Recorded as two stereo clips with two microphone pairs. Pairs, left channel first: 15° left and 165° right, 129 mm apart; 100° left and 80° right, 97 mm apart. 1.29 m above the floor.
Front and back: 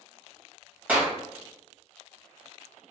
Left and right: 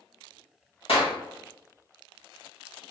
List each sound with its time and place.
0.9 s a clap: 115° left, 1.5 m